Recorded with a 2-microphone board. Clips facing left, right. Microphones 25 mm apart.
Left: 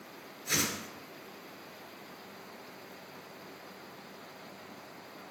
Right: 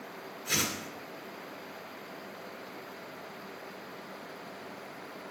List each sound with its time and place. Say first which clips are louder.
0.5 s a whoosh: right 1 dB; centre (ahead or behind), 1.6 m